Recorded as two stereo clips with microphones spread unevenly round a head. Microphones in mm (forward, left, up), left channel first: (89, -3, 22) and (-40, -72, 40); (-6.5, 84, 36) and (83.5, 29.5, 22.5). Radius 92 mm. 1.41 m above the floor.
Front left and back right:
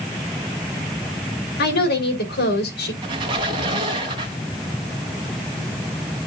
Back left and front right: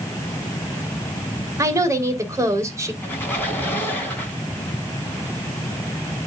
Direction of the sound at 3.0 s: 160° right.